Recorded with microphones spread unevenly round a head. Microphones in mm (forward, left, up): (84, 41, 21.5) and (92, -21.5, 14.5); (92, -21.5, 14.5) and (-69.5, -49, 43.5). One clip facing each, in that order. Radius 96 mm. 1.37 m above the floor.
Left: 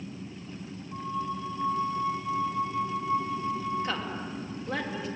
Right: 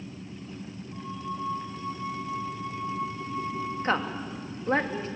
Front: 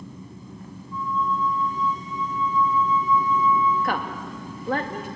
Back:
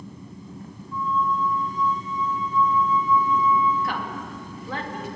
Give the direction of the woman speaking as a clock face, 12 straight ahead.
1 o'clock.